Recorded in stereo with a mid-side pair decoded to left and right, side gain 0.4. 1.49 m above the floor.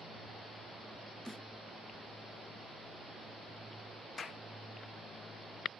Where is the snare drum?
Straight ahead.